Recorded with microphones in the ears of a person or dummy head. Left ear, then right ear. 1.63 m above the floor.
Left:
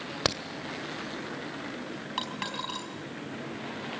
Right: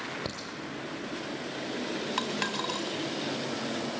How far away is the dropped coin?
About 3.5 m.